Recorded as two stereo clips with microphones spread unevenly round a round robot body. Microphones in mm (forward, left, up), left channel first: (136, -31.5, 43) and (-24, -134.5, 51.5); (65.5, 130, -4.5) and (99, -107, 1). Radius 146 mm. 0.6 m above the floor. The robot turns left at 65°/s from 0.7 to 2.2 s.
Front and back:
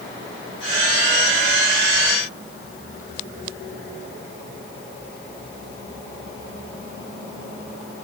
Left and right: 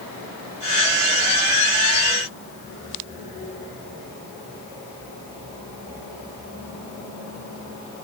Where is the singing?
I don't hear singing.